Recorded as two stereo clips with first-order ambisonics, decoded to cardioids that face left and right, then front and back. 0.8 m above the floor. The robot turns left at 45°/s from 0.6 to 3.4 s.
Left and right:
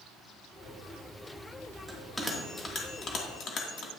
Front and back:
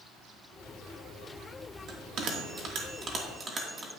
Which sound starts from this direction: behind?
A bell, at 1.9 s.